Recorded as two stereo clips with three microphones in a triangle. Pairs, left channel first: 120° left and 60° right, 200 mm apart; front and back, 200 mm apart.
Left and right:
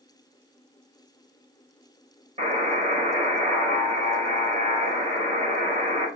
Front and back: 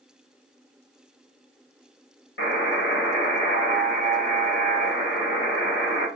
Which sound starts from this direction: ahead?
A buzzer, at 2.4 s.